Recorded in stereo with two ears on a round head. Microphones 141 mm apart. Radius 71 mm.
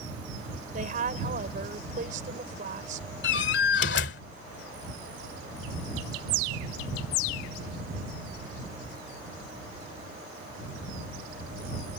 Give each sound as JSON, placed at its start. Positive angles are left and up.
{"t": 0.7, "sound": "a woman speaking", "side_deg": -50}
{"t": 3.2, "sound": "a door slam", "side_deg": 80}